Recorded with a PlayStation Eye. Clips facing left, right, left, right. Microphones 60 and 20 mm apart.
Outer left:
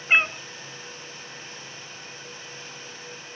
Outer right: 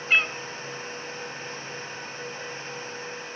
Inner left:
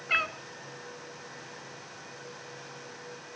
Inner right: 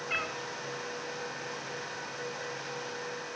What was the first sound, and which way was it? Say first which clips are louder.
A cat meowing: outer left 2 dB, inner left 6 dB; 25° left (ahead or behind).